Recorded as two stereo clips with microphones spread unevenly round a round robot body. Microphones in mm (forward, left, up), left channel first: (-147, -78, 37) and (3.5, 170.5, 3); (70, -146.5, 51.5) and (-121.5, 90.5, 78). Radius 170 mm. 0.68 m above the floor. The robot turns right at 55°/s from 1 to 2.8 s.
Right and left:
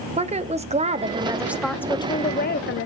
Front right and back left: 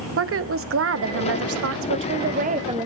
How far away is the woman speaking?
About 1.0 m.